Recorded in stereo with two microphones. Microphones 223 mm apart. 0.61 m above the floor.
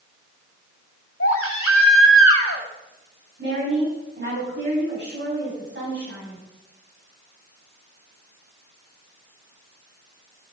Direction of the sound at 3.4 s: 55° right (ahead or behind).